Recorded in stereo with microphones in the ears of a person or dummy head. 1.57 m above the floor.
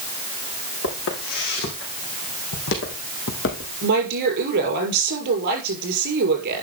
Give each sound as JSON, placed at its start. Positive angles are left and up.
{"t": 0.8, "sound": "footsteps", "side_deg": 70, "distance_m": 5.0}
{"t": 3.8, "sound": "a woman speaking", "side_deg": -50, "distance_m": 6.0}